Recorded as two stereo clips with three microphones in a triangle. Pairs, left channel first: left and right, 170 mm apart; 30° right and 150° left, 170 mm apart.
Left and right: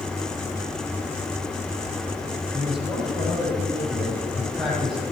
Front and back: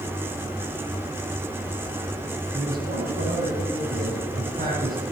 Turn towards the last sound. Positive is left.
turn(degrees=180)